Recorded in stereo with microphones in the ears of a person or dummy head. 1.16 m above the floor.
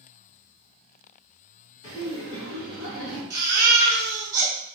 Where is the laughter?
75° left (ahead or behind), 2 m.